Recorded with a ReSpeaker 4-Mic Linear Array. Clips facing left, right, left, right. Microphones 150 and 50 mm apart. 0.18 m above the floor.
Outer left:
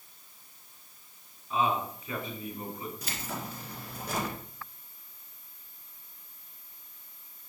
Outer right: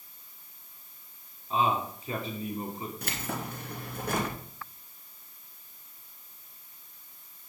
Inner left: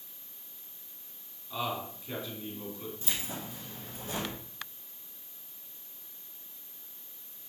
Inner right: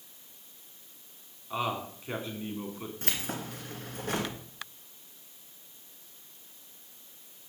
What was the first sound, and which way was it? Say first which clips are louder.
A man speaking: outer right 1 dB, inner right 2 dB; 30° right (ahead or behind).